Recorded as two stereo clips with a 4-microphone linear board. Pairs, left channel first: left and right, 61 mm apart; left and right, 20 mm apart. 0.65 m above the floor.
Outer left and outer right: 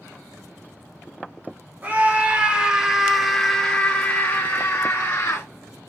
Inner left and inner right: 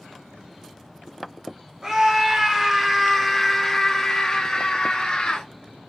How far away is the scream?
About 1.4 m.